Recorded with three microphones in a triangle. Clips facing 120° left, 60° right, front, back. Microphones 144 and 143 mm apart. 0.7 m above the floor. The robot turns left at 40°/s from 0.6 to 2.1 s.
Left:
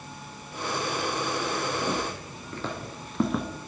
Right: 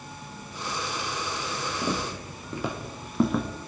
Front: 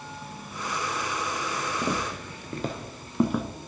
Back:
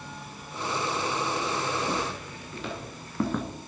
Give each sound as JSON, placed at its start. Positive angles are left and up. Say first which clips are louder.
{"t": 1.8, "sound": "footsteps", "louder": "even, front 1 dB", "azimuth_deg": 20, "distance_m": 1.3}